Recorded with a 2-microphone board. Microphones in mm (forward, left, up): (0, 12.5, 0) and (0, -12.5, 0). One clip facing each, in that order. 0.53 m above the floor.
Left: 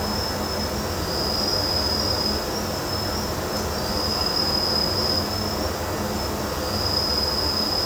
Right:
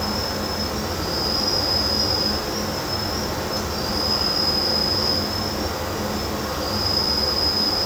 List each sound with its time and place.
0.0 s an insect: 25° right (ahead or behind), 4.5 m